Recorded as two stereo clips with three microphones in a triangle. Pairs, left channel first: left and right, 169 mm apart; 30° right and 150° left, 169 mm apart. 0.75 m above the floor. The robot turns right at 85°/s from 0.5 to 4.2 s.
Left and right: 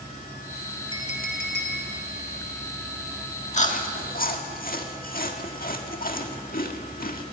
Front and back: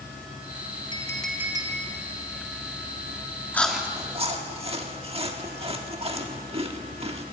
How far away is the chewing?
About 1.6 m.